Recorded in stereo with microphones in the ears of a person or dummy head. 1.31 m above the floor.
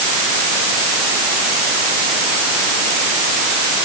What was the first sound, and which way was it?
Only background noise.